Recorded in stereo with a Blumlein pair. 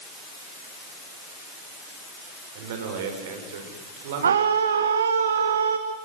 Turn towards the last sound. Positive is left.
turn(degrees=-65)